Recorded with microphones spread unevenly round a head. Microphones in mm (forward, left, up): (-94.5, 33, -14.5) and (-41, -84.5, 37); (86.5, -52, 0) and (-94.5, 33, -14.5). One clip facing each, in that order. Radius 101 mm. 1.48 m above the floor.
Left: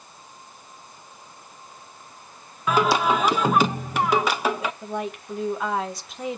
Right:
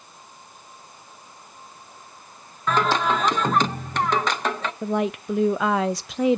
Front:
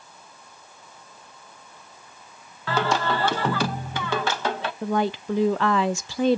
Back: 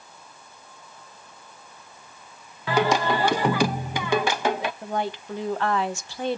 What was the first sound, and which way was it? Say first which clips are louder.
Singing: left 1 dB, back 3 dB; 135° right.